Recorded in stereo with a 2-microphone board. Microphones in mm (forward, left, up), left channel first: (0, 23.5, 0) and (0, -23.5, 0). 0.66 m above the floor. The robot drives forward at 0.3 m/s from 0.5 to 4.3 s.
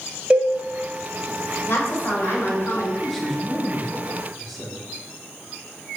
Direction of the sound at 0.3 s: 25° right (ahead or behind).